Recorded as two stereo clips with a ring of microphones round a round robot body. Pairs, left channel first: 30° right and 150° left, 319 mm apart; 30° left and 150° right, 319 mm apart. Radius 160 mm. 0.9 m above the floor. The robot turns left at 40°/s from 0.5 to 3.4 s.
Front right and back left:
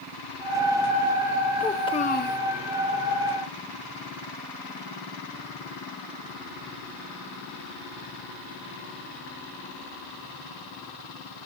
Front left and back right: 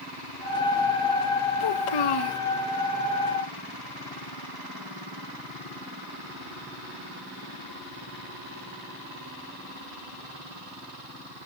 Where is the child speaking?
55° left, 0.9 m; by 2.4 s 25° left, 0.9 m.